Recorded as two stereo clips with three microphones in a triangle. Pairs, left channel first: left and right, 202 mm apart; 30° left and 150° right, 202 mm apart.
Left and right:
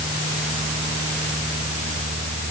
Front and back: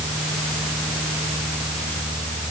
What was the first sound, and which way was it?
Only background noise.